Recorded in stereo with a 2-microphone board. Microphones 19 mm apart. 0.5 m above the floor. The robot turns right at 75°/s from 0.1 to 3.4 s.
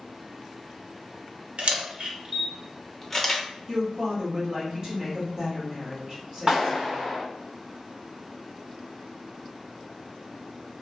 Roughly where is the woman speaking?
Right.